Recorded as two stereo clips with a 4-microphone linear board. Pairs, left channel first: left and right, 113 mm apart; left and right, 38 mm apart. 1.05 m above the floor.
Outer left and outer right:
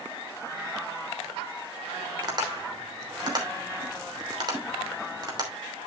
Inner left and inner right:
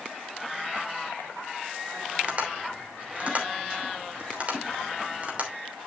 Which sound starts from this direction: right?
Tapping, at 2.2 s.